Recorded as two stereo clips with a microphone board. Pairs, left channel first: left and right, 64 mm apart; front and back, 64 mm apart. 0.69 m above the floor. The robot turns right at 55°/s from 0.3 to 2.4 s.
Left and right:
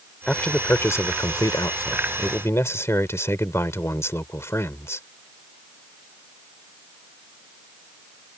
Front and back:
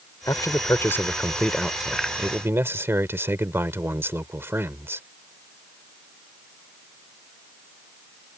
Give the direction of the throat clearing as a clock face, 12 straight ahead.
No throat clearing in this recording.